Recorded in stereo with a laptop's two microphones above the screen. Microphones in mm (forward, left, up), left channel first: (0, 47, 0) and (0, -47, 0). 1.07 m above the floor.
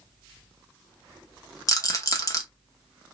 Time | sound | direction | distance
1.7 | a rattle | 35° left (ahead or behind) | 0.8 m